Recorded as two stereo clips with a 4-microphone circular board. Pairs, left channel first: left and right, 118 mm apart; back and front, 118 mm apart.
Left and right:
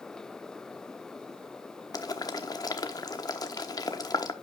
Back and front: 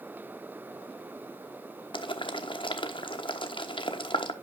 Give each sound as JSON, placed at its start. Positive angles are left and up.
{"t": 1.9, "sound": "boiling", "azimuth_deg": 140, "distance_m": 1.0}